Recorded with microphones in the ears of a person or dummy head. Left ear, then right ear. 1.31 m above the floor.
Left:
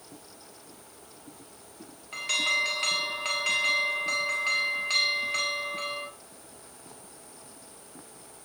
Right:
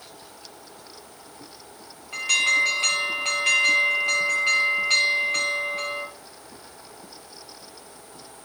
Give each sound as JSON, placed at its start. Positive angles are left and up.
{"t": 2.1, "sound": "an alarm", "side_deg": 0, "distance_m": 1.4}